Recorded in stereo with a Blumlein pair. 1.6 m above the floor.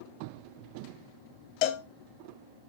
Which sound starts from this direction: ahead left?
A cowbell, at 1.6 s.